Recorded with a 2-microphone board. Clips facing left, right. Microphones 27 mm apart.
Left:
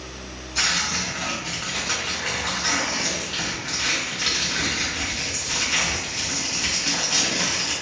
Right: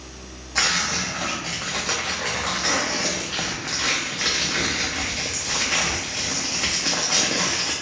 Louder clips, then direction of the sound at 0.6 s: Right 1 dB; 75° right (ahead or behind).